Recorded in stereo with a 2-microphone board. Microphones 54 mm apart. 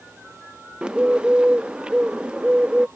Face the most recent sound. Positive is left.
turn(degrees=-20)  # may be behind; listen again after turning